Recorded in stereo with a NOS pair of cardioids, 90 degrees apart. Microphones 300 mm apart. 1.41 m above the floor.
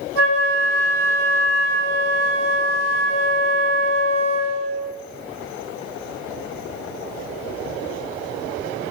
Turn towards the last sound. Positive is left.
turn(degrees=-55)